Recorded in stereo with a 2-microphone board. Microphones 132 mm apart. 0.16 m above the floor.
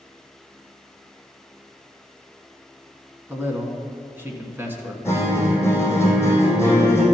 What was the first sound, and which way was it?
A man speaking, 15° right (ahead or behind).